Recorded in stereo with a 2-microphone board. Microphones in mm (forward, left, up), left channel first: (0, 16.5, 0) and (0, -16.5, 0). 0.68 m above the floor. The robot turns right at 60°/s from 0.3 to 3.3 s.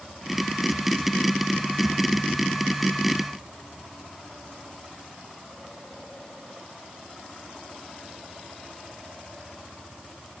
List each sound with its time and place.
Only background noise.